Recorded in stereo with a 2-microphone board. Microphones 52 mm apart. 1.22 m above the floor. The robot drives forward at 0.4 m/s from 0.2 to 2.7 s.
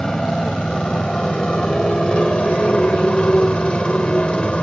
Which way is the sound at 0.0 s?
15° left (ahead or behind).